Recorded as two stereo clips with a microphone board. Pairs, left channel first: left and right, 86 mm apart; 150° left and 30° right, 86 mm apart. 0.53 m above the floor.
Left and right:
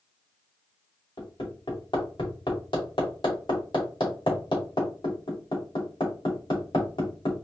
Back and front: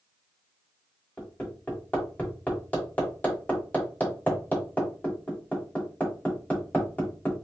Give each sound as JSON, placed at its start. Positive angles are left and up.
{"t": 1.2, "sound": "hammering", "azimuth_deg": 80, "distance_m": 2.5}